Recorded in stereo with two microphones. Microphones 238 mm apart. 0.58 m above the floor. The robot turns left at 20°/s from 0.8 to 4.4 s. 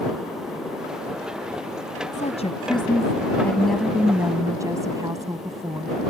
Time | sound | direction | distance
2.1 | a woman speaking | 30° left | ?